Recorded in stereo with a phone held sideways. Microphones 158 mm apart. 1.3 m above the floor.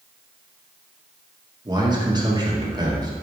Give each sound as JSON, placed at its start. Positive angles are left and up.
{"t": 1.6, "sound": "a man speaking", "side_deg": -25, "distance_m": 1.0}